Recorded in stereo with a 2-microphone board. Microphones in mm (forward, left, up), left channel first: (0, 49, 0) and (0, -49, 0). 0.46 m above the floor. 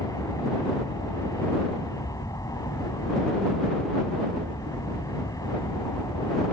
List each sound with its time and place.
0.0 s an aircraft: 35° left (ahead or behind)